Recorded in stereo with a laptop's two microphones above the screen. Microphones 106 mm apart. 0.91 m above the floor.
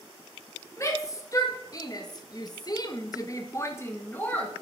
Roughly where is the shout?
Left.